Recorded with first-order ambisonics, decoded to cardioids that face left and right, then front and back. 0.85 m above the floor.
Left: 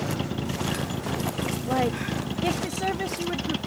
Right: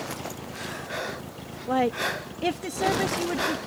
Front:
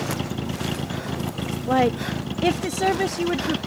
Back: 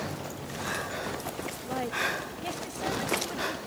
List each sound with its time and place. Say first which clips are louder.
0.0 s a vehicle: left 4 dB, front 8 dB; 40° left
1.7 s a woman speaking: right 3 dB, front 9 dB; 5° right